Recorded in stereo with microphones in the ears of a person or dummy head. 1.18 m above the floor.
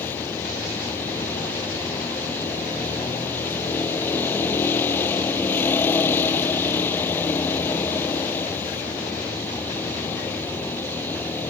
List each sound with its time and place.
0.0 s a vehicle: 10° left (ahead or behind)